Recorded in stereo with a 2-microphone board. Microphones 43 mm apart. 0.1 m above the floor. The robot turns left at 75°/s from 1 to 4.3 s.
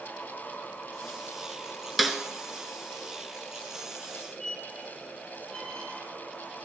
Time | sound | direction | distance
2.0 | a snare drum | centre (ahead or behind) | 1.0 m
4.4 | a squeak | 25° left (ahead or behind) | 2.5 m